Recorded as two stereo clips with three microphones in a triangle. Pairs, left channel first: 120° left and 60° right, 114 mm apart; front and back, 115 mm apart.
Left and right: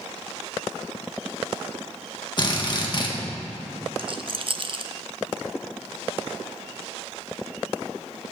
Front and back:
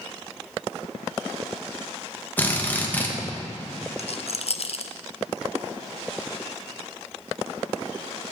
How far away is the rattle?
About 0.5 m.